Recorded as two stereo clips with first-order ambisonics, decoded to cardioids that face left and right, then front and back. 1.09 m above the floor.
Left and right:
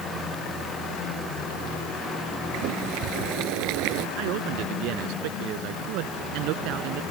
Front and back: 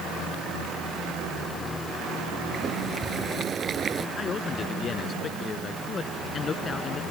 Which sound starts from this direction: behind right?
Boiling, at 2.5 s.